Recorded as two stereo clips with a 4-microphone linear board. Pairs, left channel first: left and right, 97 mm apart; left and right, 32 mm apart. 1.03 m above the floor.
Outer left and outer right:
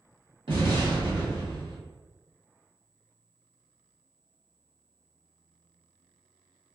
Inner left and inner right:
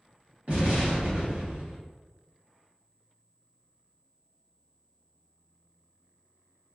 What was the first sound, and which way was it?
An explosion, 60° right (ahead or behind).